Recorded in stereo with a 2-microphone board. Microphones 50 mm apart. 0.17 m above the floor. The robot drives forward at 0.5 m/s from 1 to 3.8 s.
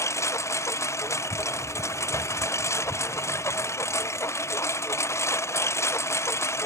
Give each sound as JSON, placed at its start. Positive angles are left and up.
{"t": 0.0, "sound": "a lawn mower", "side_deg": 80}